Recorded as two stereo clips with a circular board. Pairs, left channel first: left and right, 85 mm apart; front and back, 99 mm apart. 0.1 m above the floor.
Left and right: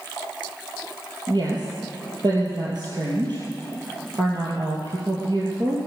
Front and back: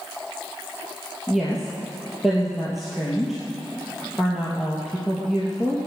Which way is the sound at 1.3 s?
90° right.